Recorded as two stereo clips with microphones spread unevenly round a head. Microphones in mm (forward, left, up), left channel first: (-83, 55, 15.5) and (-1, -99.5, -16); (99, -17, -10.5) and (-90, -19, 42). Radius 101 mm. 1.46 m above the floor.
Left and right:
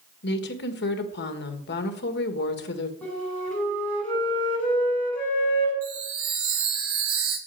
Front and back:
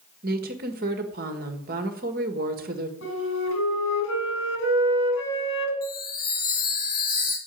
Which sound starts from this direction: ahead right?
A chime, at 5.8 s.